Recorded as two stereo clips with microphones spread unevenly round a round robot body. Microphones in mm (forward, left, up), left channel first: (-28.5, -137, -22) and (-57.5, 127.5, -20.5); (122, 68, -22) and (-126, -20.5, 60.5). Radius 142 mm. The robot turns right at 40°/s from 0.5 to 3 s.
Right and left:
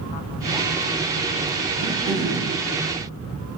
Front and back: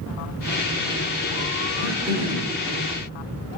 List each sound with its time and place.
1.8 s throat clearing: 160° left, 0.8 m; by 2.5 s 170° right, 0.8 m